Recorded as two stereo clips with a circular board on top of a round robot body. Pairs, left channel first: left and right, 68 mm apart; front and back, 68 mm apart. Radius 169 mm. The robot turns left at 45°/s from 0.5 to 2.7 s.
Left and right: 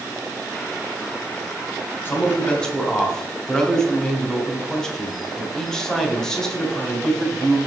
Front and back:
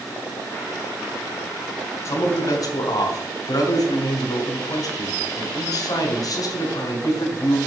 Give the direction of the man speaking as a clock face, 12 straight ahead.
11 o'clock.